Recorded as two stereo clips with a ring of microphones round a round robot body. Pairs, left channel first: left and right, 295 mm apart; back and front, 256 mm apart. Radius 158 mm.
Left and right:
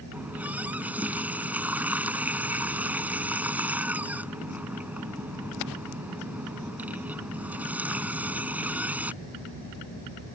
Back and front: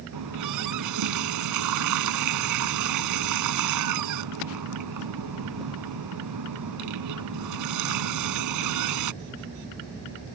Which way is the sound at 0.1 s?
5° right.